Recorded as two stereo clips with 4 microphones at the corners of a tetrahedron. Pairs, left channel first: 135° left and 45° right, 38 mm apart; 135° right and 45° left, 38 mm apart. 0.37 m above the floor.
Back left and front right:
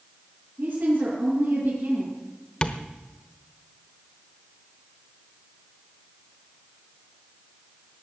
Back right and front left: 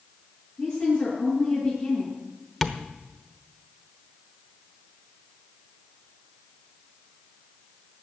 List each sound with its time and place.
0.6 s a woman speaking: 55° right, 5.5 m
2.6 s tapping: 140° left, 1.0 m